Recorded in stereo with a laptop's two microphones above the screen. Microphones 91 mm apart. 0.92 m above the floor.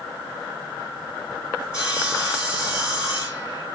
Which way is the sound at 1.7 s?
10° right (ahead or behind).